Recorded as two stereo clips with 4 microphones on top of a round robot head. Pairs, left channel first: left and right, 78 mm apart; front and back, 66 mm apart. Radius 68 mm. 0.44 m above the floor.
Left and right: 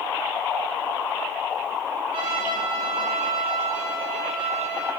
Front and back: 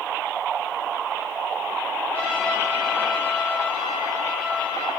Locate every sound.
2.1 s a trumpet: 70° right, 3.5 m